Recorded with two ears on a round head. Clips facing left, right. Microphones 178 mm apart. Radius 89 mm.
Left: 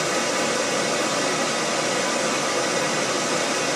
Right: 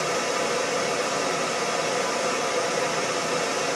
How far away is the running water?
About 1.3 m.